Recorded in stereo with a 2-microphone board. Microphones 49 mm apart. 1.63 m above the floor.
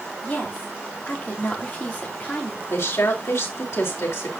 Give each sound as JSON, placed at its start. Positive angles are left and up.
{"t": 0.2, "sound": "a woman speaking", "side_deg": 30, "distance_m": 4.5}
{"t": 2.7, "sound": "a woman speaking", "side_deg": 75, "distance_m": 4.0}